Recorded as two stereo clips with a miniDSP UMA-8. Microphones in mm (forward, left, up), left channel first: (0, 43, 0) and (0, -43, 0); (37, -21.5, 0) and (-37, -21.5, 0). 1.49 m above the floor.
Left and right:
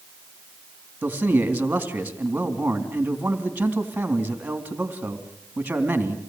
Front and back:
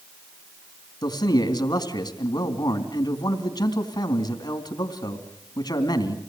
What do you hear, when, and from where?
1.0 s a man speaking: 20° right, 3.5 m